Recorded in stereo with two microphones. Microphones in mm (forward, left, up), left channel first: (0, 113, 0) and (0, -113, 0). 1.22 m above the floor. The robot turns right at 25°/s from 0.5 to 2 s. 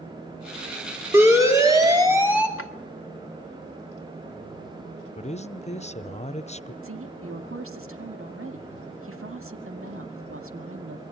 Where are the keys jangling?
No keys jangling in this recording.